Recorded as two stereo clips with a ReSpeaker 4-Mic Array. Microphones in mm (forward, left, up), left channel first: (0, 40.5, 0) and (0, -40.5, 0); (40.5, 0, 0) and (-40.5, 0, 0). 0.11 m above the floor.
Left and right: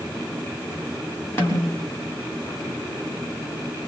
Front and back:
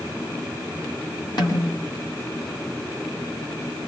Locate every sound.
1.4 s a snare drum: 30° left, 7 m